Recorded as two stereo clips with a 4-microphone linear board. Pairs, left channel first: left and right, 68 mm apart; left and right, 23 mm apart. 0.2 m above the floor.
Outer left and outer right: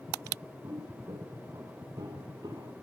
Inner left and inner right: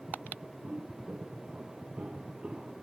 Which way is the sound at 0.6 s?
45° right (ahead or behind).